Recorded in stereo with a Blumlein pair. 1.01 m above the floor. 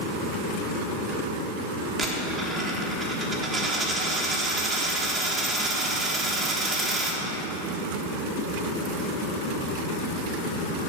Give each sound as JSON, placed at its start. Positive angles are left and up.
{"t": 2.0, "sound": "a dropped coin", "azimuth_deg": -20, "distance_m": 1.1}